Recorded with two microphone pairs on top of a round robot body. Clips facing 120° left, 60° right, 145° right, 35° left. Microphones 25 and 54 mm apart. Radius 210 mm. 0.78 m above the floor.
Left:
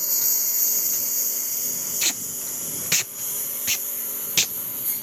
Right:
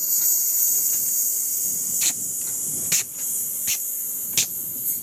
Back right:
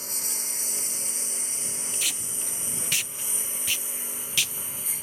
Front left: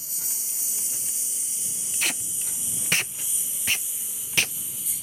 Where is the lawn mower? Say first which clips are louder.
Right 1 dB, back right 5 dB; straight behind; by 5.0 s 170° left.